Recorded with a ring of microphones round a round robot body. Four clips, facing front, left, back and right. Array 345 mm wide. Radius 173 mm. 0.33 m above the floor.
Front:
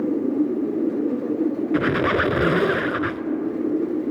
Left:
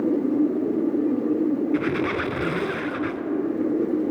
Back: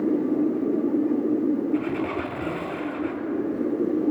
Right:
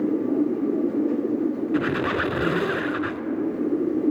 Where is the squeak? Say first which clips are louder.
Even, front 5 dB; 5° right, 0.6 m.